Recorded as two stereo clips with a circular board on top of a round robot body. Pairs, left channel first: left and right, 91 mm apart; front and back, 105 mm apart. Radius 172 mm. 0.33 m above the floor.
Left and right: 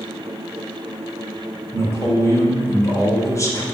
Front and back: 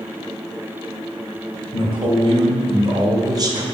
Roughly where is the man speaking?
Behind left.